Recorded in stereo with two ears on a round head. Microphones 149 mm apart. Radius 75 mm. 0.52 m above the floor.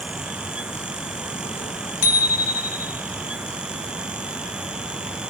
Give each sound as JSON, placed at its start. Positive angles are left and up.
{"t": 2.0, "sound": "a bicycle bell", "side_deg": 60, "distance_m": 2.5}